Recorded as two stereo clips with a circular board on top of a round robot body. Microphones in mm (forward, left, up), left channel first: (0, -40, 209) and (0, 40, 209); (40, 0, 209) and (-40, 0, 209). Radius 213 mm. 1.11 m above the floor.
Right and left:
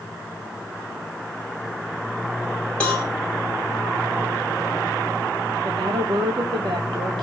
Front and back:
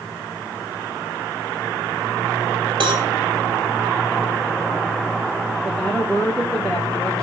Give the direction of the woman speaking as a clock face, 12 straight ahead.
9 o'clock.